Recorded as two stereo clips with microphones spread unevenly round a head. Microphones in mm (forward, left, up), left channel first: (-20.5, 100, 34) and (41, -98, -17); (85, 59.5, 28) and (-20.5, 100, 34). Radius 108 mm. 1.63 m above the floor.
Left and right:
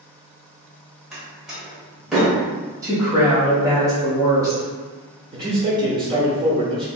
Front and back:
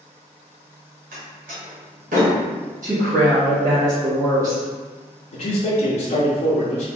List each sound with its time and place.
1.1 s a door slam: 165° right, 1.7 m
2.8 s a woman speaking: 155° right, 1.7 m
5.3 s a man speaking: 5° right, 1.0 m